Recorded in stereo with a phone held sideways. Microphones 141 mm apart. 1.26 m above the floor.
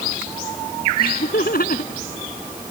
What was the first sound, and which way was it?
Laughter, 85° left.